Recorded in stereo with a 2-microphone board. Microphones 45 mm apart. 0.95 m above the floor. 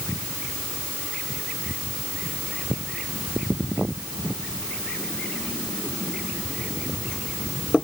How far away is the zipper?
I don't hear a zipper.